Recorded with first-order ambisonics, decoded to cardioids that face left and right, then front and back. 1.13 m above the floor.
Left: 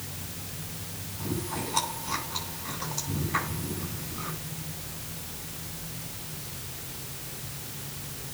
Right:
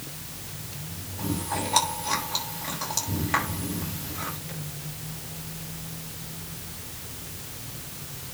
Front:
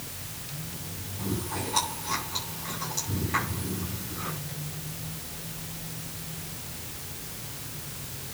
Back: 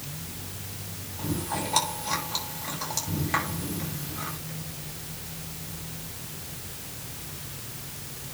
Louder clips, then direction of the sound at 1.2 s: Right 4 dB, back 2 dB; 115° right.